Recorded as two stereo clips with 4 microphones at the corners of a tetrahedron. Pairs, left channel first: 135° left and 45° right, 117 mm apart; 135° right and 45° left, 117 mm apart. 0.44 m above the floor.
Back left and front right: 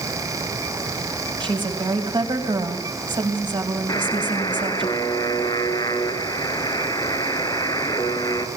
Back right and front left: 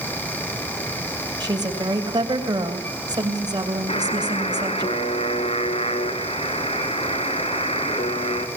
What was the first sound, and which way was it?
A woman speaking, 5° right.